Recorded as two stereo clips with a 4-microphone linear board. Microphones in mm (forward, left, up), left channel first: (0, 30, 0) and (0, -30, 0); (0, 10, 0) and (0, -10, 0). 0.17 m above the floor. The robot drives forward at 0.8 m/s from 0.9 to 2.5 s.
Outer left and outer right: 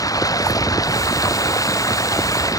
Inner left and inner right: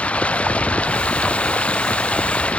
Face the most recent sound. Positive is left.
turn(degrees=75)  # may be behind; listen again after turning